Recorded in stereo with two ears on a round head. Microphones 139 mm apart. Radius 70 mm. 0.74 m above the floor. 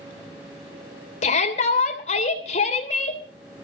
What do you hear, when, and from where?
1.2 s a shout: 45° left (ahead or behind), 3 m